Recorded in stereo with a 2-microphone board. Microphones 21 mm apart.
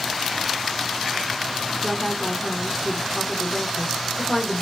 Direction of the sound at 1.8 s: 35° left (ahead or behind).